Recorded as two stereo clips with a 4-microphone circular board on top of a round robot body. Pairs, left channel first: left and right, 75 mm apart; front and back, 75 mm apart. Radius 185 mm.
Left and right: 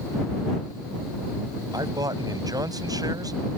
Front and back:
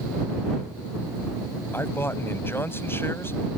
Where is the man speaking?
60° right.